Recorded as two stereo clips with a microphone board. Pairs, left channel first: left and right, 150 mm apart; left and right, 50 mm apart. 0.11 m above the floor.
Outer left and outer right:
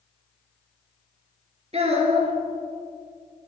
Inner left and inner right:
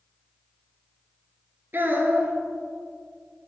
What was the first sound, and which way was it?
A child speaking, 45° right (ahead or behind).